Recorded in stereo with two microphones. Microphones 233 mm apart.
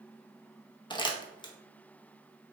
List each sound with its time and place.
0.9 s crumpling: 20° left (ahead or behind), 0.7 m